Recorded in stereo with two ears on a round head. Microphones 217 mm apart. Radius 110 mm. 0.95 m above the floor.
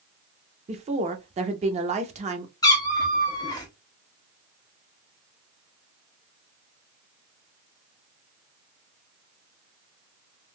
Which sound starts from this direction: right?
A woman speaking, at 0.7 s.